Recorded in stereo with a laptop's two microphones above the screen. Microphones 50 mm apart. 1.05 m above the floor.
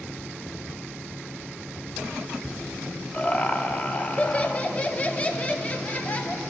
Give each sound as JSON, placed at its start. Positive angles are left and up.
{"t": 3.1, "sound": "laughter", "side_deg": 25, "distance_m": 0.9}